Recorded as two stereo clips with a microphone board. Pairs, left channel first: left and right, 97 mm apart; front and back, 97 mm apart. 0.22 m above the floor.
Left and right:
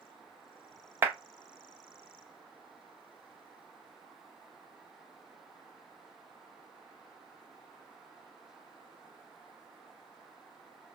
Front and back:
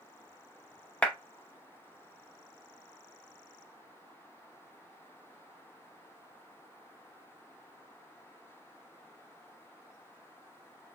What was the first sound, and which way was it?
A clap, 60° right.